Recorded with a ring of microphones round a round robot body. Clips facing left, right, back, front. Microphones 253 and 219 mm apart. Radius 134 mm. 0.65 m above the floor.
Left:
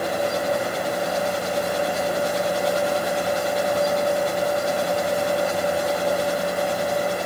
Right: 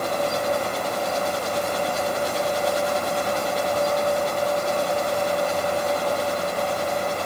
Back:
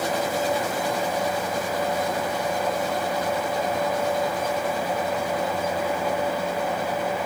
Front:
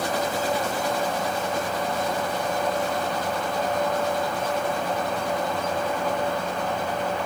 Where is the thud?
I don't hear a thud.